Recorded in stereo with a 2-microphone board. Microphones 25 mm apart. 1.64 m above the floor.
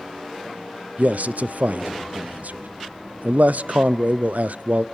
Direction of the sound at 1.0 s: 80° right.